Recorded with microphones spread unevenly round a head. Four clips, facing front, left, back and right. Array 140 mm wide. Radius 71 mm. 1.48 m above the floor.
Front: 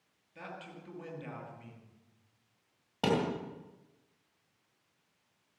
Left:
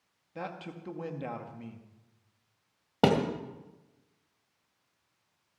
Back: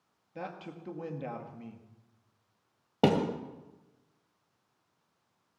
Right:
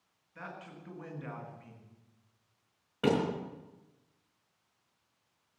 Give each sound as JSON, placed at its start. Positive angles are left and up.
{"t": 0.3, "sound": "a man speaking", "azimuth_deg": 135, "distance_m": 2.0}
{"t": 3.0, "sound": "a thud", "azimuth_deg": 130, "distance_m": 2.5}